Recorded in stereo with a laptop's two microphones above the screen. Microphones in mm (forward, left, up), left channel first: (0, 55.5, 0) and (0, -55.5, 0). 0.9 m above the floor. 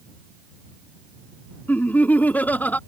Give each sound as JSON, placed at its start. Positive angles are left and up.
{"t": 1.7, "sound": "laughter", "side_deg": 15}